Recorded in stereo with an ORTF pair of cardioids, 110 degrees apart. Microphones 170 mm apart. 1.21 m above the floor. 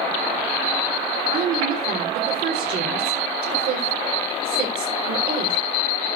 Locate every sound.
1.3 s a woman speaking: 65° right, 4.5 m